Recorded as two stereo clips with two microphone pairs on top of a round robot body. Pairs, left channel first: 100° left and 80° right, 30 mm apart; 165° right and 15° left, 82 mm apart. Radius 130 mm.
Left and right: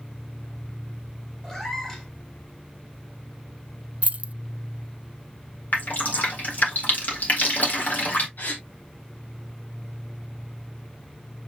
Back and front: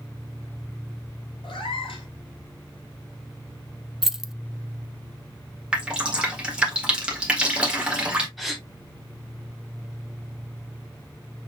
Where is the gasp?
105° left, 1.4 m.